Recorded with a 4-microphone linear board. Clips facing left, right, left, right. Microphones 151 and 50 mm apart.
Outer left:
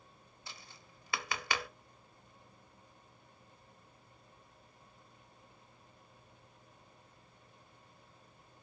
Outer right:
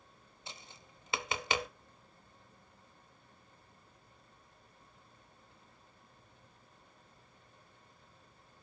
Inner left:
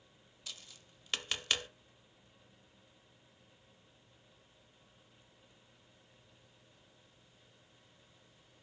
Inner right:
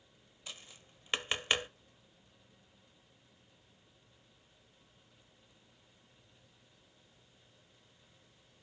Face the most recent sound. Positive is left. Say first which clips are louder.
# outer right 2 dB, inner right 1 dB
turn(degrees=-20)  # may be behind; listen again after turning